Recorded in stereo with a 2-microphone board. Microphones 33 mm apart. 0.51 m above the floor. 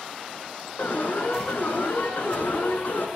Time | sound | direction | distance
0.8 | an alarm | 65° left (ahead or behind) | 6.5 m